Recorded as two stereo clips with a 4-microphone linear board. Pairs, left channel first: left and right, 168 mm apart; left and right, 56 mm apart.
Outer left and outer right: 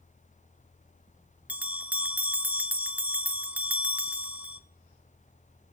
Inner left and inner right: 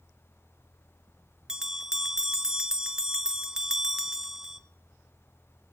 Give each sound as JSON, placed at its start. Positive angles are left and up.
{"t": 1.5, "sound": "a bell", "side_deg": -10, "distance_m": 0.7}